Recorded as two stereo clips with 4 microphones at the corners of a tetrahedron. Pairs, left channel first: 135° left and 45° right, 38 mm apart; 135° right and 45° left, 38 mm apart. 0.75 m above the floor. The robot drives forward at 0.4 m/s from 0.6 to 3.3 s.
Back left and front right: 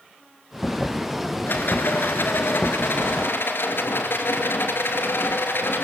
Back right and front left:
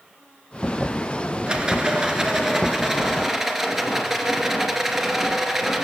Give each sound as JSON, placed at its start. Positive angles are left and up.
{"t": 1.5, "sound": "a rattle", "azimuth_deg": 110, "distance_m": 2.0}